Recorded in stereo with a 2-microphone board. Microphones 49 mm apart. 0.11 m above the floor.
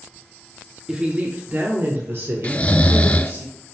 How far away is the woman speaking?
About 1.5 m.